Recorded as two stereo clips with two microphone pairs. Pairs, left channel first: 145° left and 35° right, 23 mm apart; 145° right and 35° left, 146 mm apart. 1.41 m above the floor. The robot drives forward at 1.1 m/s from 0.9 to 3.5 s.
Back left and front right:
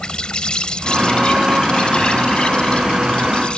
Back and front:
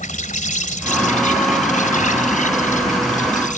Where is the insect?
170° right; by 3.6 s 175° right.